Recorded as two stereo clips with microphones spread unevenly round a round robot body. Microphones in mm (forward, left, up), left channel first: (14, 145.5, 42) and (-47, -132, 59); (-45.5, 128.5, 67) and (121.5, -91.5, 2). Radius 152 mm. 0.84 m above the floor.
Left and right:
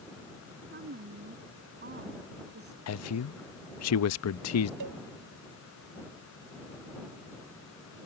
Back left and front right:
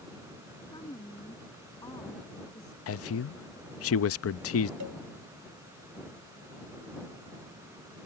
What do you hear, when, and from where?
0.7 s a woman speaking: 155° right
2.9 s a man speaking: 90° left
4.8 s a cowbell: 80° right